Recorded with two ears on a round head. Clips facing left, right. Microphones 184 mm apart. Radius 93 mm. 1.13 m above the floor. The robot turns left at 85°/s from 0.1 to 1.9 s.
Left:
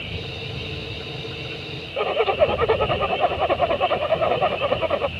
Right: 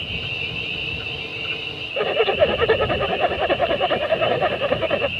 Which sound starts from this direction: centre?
A zipper, at 2.0 s.